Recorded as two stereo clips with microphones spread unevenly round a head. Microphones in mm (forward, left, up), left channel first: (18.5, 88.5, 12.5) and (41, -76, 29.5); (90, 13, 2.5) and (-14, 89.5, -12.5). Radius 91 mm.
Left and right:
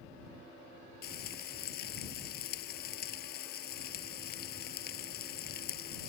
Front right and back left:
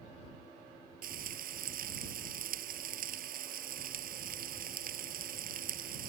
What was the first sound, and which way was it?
Frying, 140° left.